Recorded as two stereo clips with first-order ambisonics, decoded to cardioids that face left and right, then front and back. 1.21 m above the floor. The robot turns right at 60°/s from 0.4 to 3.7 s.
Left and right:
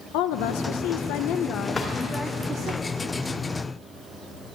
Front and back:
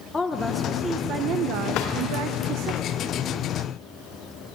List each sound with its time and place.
0.1 s a woman speaking: 75° left, 0.7 m; by 2.7 s 145° right, 0.7 m
1.7 s a drawer: 15° left, 1.6 m; by 1.9 s 25° left, 1.6 m